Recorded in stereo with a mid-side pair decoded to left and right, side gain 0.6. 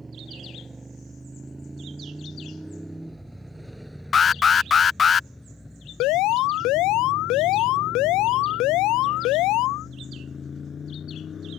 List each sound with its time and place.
0.0 s a motorcycle: 20° right; by 11.6 s 35° left
4.1 s an alarm: 30° left
6.0 s an alarm: 70° left